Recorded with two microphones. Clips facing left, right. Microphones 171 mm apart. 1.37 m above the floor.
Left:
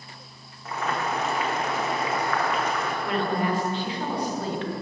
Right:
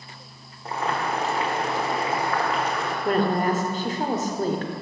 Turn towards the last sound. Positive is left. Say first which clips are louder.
# right 5 dB
turn(degrees=-45)  # may be behind; listen again after turning